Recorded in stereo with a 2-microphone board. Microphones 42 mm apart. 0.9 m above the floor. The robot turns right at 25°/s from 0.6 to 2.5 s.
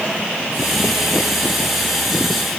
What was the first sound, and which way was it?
Only background noise.